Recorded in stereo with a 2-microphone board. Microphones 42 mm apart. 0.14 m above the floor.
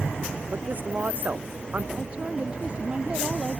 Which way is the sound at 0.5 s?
45° right (ahead or behind).